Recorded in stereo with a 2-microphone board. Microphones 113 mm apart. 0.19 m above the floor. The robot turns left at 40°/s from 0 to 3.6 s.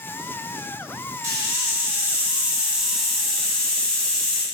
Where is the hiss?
25° right (ahead or behind), 0.7 m; by 4.4 s 10° left (ahead or behind), 0.7 m.